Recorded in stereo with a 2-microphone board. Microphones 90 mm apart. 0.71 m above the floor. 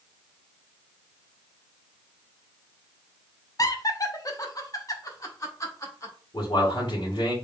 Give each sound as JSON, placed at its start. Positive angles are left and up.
{"t": 3.6, "sound": "laughter", "side_deg": 40, "distance_m": 0.6}
{"t": 6.3, "sound": "a man speaking", "side_deg": 60, "distance_m": 2.0}